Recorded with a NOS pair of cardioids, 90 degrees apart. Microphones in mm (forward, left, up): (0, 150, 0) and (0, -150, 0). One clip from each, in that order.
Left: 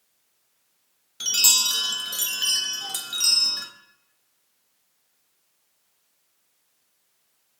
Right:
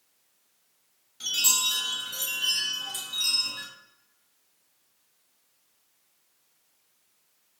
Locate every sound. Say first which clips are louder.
1.2 s a chime: left 5 dB; 40° left, 0.5 m